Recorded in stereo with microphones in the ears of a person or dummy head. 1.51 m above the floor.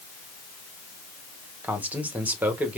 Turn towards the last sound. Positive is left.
turn(degrees=-5)  # may be behind; listen again after turning